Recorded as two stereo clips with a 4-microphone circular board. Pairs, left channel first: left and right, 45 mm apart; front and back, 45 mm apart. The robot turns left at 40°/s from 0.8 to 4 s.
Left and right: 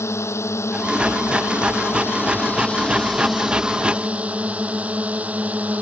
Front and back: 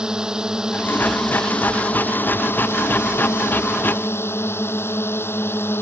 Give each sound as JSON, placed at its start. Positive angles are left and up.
{"t": 0.0, "sound": "a drone", "azimuth_deg": 105}